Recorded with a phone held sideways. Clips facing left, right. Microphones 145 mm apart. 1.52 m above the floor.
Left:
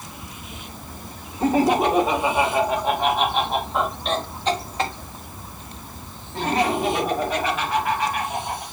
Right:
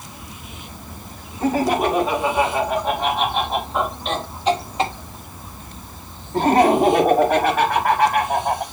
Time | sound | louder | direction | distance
1.4 | laughter | left 1 dB | 25° left (ahead or behind) | 2.5 m